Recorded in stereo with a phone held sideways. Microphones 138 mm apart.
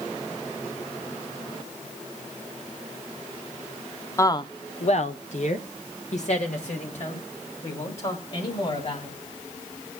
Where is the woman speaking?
20° left (ahead or behind), 0.7 m; by 9.2 s 50° left (ahead or behind), 3.5 m.